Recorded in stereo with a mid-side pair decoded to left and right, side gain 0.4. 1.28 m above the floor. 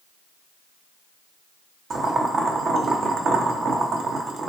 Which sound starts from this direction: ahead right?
Boiling, at 1.9 s.